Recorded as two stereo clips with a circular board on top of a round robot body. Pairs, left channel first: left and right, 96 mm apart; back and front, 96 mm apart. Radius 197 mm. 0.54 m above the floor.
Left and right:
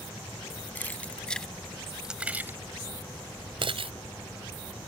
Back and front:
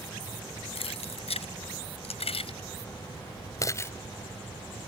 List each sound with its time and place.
0.8 s keys jangling: 165° left; by 3.9 s 115° right